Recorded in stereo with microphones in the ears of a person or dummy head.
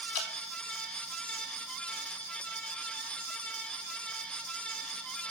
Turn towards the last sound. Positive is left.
turn(degrees=70)  # may be behind; listen again after turning